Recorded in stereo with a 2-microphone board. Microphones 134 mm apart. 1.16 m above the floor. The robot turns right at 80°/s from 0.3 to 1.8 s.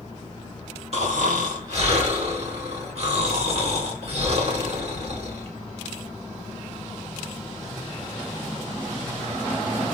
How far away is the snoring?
About 1.8 m.